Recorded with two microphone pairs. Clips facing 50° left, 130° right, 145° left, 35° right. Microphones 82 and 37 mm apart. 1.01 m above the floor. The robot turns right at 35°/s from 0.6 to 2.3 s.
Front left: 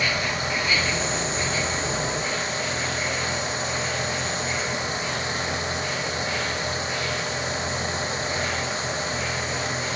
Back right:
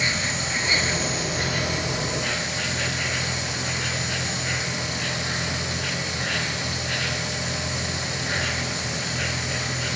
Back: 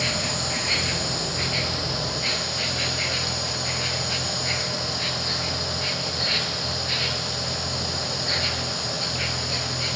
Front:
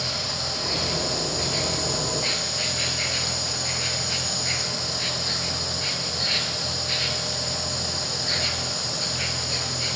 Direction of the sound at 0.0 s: 170° left.